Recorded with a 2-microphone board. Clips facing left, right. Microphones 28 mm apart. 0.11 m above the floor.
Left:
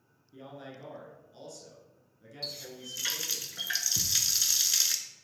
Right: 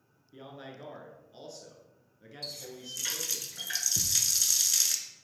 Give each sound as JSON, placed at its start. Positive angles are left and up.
{"t": 0.3, "sound": "a man speaking", "side_deg": -25, "distance_m": 1.7}
{"t": 2.4, "sound": "a running tap", "side_deg": 20, "distance_m": 0.8}
{"t": 4.0, "sound": "a thud", "side_deg": -15, "distance_m": 0.8}